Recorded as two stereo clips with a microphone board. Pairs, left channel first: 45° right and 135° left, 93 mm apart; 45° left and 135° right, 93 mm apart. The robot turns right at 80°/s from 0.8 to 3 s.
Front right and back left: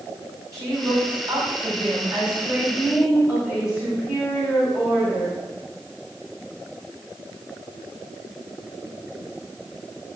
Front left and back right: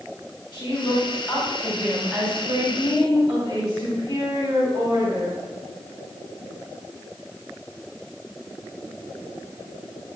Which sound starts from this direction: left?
A woman speaking, at 0.5 s.